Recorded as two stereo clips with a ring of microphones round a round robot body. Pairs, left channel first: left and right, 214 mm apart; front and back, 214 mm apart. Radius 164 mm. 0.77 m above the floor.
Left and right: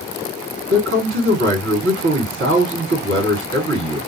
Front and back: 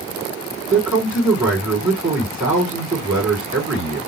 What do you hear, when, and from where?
0.7 s a man speaking: 90° right, 1.9 m